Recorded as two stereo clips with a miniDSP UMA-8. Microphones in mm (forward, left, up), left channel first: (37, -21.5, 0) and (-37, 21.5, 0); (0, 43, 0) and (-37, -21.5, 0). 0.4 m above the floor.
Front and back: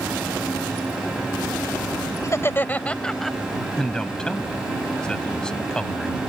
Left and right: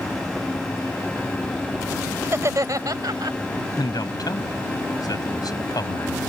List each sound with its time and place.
2.2 s laughter: 75° right; by 3.4 s 120° right
3.8 s a man speaking: 50° left